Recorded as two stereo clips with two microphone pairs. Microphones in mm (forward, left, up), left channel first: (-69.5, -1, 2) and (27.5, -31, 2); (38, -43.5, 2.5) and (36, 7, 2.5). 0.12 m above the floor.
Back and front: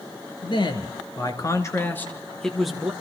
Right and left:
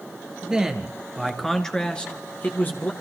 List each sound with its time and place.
0.4 s a man speaking: 165° left, 3 m; by 2.9 s 95° right, 2 m